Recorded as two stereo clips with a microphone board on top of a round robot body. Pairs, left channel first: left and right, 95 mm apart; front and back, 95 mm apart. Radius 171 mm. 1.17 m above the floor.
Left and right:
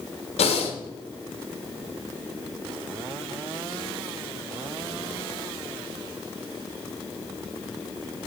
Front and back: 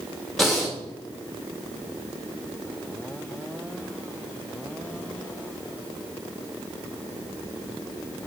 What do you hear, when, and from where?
0.4 s breathing: 90° left, 1.6 m